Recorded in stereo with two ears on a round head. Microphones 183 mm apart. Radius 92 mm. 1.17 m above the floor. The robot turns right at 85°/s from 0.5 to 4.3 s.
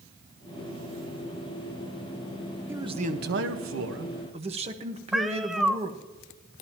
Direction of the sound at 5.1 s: Centre (ahead or behind).